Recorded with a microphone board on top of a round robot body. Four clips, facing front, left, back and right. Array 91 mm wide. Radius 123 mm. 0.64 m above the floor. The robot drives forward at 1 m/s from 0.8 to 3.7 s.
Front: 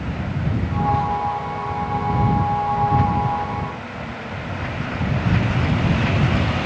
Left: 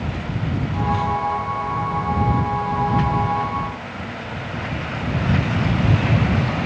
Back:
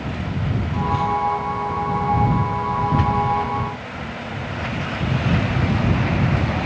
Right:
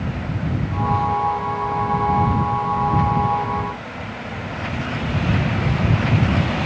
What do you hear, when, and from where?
Only background noise.